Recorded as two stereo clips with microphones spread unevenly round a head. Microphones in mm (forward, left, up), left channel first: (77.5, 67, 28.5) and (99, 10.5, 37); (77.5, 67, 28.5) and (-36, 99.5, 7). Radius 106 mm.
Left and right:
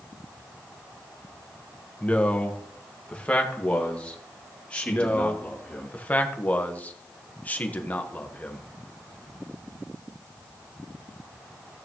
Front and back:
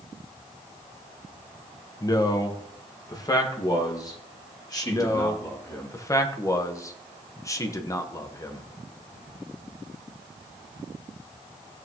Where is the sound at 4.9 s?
45° left, 1.5 m.